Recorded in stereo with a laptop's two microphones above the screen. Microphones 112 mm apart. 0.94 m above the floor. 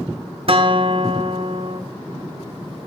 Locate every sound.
0.5 s a guitar: 55° right (ahead or behind), 1.2 m